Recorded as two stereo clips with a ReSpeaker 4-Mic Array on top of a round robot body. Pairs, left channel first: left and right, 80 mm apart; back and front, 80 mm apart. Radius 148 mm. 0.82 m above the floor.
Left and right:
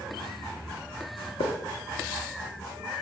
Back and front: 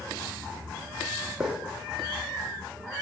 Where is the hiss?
85° left, 0.7 m.